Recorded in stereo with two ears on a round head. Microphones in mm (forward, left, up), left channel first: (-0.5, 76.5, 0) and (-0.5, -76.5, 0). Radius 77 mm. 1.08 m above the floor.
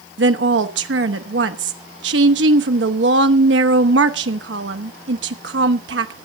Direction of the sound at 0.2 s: 75° right (ahead or behind).